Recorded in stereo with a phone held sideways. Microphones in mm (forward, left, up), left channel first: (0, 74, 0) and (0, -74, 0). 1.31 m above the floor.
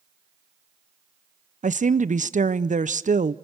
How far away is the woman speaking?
About 0.6 m.